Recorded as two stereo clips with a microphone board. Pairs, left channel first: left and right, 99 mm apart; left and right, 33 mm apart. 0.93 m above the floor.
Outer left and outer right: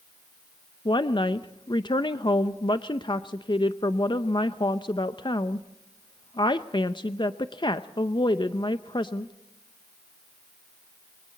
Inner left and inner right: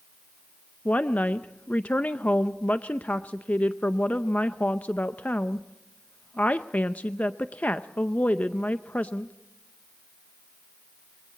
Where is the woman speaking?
50° left (ahead or behind), 0.6 m.